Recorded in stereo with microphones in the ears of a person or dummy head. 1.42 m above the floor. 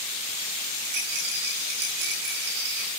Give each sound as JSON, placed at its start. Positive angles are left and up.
{"t": 0.8, "sound": "a rattle", "side_deg": -65, "distance_m": 9.5}